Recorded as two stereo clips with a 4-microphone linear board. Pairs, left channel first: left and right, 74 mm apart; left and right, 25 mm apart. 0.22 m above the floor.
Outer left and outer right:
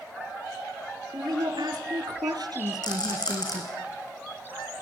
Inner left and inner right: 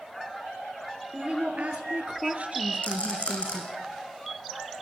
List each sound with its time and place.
1.1 s a woman speaking: 70° right (ahead or behind), 4 m; by 3.7 s 60° right (ahead or behind), 2.5 m
2.8 s a rattle: 65° left (ahead or behind), 8 m